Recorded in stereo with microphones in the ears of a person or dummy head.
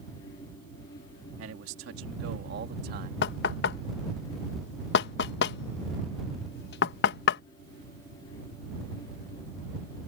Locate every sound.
1.4 s a man speaking: 75° right (ahead or behind); by 3.1 s 45° right (ahead or behind)
3.2 s knocking: 65° left (ahead or behind)